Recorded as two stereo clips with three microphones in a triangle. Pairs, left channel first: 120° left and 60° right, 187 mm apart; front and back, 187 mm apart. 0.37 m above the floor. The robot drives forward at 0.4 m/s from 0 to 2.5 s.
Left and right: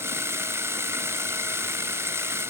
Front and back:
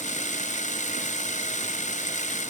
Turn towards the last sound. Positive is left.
No sound to turn to.